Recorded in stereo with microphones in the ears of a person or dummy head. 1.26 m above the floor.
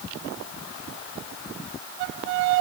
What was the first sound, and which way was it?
Only background noise.